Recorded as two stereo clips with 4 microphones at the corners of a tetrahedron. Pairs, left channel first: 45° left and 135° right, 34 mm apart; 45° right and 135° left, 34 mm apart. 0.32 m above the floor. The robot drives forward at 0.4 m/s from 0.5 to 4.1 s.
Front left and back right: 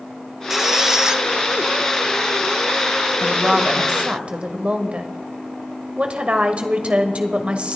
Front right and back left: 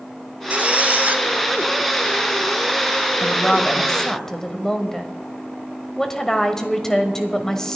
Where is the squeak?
150° left, 0.6 m; by 1.2 s 160° left, 0.8 m.